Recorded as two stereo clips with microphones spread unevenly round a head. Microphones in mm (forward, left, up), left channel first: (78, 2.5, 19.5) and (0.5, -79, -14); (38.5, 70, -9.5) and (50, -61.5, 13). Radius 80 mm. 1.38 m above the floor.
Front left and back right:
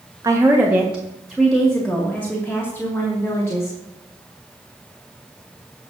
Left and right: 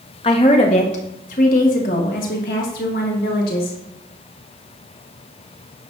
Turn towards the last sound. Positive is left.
turn(degrees=125)